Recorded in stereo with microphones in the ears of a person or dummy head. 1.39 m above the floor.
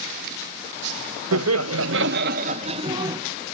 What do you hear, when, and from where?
1.3 s laughter: 80° right, 0.9 m; by 3.2 s 20° right (ahead or behind), 1.1 m